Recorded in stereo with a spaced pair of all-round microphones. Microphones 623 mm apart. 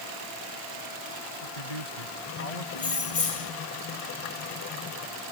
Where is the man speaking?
85° left.